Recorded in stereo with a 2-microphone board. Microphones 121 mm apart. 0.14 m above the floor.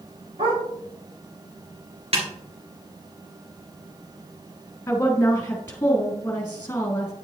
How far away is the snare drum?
About 2.5 m.